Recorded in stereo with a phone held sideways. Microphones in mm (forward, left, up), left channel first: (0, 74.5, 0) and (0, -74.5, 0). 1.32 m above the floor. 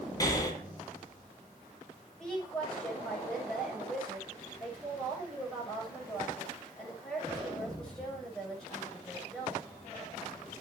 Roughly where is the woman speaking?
Centre.